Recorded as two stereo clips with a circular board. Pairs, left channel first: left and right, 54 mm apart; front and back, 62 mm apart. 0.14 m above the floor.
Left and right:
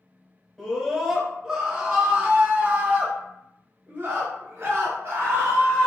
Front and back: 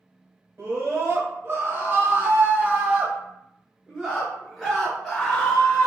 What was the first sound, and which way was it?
A scream, straight behind.